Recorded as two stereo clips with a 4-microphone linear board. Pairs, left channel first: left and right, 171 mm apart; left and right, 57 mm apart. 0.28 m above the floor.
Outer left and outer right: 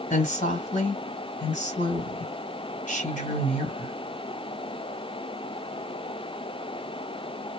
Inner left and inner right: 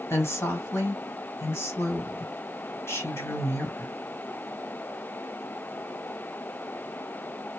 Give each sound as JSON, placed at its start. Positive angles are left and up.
{"t": 0.1, "sound": "a woman speaking", "side_deg": 50, "distance_m": 1.8}